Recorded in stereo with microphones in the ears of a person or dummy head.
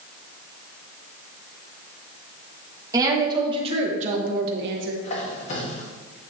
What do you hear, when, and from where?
2.9 s a woman speaking: 20° right (ahead or behind), 2 m; by 4.9 s 75° right (ahead or behind), 1.2 m
5.0 s a squeak: 45° left (ahead or behind), 1.6 m